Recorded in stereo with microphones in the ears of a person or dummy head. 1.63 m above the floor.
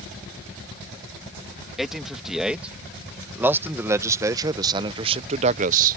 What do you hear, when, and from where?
1.8 s a man speaking: centre (ahead or behind); by 6.0 s 50° right (ahead or behind)